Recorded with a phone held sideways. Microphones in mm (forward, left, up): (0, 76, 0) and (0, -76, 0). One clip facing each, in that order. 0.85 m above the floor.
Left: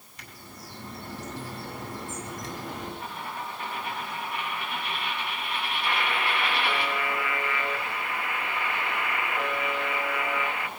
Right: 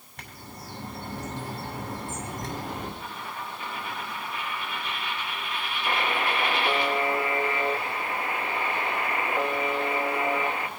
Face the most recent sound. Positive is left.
turn(degrees=-35)  # may be behind; listen again after turning